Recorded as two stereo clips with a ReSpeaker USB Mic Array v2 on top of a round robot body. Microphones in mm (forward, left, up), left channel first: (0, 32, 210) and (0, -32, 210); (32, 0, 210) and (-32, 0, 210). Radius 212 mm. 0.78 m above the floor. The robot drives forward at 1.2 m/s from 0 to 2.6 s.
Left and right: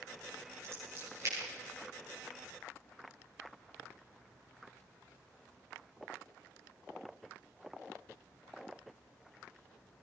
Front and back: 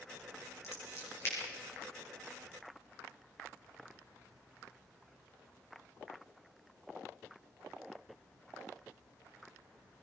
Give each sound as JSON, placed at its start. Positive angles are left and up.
{"t": 0.6, "sound": "scissors", "azimuth_deg": -40, "distance_m": 9.5}